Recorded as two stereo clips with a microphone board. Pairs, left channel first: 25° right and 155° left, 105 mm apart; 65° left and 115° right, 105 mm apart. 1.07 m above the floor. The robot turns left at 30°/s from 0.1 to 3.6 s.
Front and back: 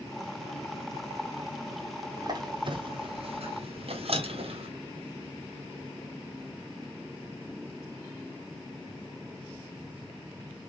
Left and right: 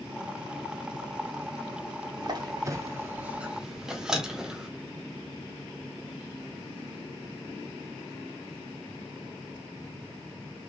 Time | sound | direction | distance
2.2 | a squeak | 155° right | 0.9 m